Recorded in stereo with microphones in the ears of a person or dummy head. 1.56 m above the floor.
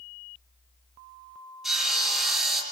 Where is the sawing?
Centre (ahead or behind), 6 m.